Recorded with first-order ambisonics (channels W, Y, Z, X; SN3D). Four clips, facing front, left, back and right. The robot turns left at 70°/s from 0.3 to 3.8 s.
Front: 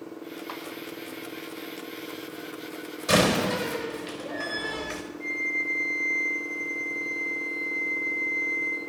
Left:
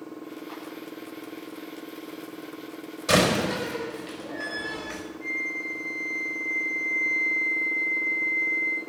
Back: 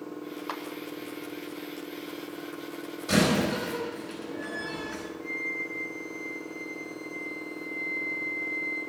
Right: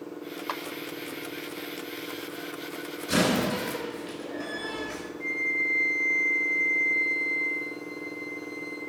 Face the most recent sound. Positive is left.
turn(degrees=-45)